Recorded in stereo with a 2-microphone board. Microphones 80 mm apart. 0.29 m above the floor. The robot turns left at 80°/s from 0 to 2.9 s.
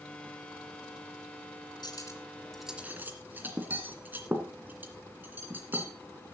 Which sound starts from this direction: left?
Cutlery clinking, at 1.8 s.